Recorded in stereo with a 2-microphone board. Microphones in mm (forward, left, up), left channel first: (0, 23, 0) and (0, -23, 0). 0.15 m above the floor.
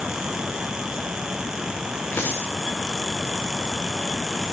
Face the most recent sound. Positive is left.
turn(degrees=50)  # may be behind; listen again after turning